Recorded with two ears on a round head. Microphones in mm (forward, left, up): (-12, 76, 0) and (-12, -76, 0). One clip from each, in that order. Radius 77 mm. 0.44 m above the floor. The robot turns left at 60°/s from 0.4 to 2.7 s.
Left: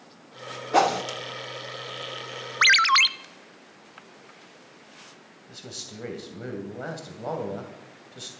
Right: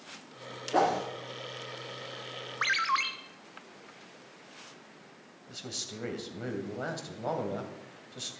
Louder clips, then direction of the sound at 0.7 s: Left 5 dB; 65° left (ahead or behind).